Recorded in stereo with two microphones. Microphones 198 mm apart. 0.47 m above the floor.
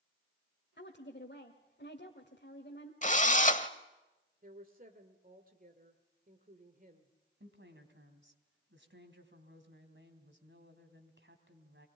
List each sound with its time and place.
0.8 s a woman speaking: 60° left (ahead or behind), 1.7 m
3.0 s a drill: 40° left (ahead or behind), 1.0 m
4.4 s a woman speaking: 45° right (ahead or behind), 1.8 m
7.4 s a woman speaking: 70° right (ahead or behind), 3 m